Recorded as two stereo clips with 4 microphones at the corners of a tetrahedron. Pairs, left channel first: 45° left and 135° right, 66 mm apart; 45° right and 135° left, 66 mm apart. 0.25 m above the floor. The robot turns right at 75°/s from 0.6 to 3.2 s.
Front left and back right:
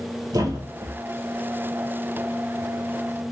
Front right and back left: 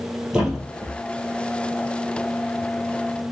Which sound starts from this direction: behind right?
A thud, at 0.3 s.